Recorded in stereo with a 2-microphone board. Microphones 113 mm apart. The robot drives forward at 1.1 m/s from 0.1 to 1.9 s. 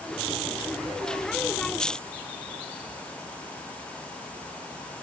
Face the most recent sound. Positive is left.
No sound to turn to.